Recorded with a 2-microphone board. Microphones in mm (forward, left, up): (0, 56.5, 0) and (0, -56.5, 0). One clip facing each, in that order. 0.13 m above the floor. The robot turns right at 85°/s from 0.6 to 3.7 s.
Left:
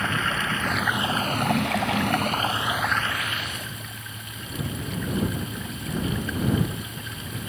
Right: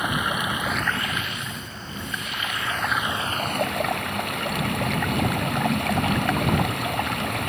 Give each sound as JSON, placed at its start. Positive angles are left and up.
{"t": 0.0, "sound": "running water", "azimuth_deg": -15}